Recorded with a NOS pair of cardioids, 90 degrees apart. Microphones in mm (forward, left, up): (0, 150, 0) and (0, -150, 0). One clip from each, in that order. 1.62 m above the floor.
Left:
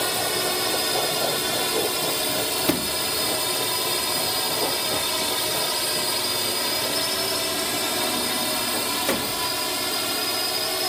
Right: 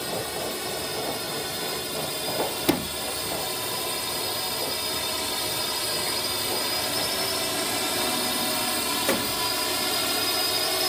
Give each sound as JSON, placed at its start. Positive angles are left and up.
{"t": 0.0, "sound": "a drone", "azimuth_deg": 60}
{"t": 2.6, "sound": "a sliding door", "azimuth_deg": 5}